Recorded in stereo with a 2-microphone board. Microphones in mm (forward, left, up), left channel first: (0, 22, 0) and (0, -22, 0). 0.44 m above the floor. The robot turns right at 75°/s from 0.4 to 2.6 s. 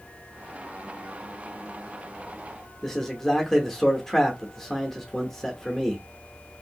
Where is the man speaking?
5° left (ahead or behind), 0.7 m.